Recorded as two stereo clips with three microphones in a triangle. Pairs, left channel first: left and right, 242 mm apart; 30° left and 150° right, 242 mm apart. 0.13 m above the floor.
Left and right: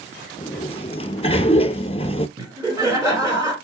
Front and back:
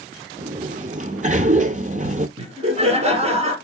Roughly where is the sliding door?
Behind.